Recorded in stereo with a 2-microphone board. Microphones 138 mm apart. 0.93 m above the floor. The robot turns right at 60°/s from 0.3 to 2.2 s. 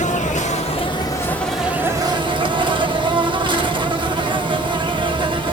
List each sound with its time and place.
0.0 s an insect: 105° left, 0.7 m; by 5.5 s 140° right, 0.7 m